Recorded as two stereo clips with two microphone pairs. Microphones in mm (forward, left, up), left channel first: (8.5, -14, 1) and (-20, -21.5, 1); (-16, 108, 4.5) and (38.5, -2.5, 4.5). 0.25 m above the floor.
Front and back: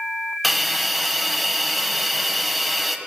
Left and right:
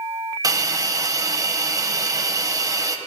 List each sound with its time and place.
0.4 s a hiss: 75° right, 0.9 m